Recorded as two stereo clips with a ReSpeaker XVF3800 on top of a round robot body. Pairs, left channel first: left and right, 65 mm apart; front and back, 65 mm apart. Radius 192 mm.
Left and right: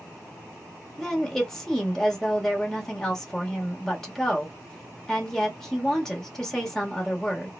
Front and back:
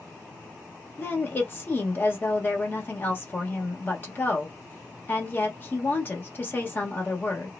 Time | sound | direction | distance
1.0 | a woman speaking | 15° left | 1.4 m